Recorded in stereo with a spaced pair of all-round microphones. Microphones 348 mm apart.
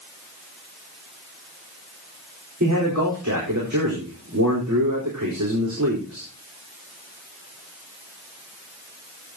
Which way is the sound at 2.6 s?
55° right (ahead or behind).